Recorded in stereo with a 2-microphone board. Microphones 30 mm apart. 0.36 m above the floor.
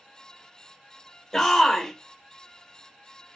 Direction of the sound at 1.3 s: 20° left (ahead or behind).